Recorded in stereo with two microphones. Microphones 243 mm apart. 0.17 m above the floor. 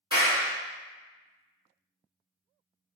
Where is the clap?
20° right (ahead or behind), 1.8 m.